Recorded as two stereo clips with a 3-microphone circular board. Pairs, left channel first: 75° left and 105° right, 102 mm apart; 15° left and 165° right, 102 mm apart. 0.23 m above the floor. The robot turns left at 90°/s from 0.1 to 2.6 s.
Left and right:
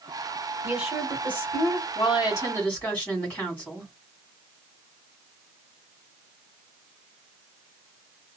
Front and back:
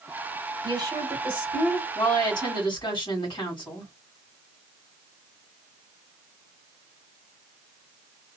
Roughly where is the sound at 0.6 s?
Behind.